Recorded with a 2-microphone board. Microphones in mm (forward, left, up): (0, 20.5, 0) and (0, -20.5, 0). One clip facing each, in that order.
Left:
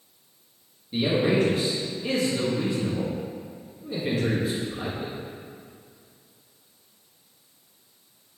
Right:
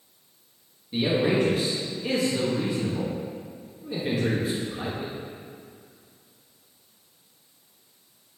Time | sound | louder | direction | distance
0.9 | a man speaking | left 1 dB | 5° right (ahead or behind) | 1.1 m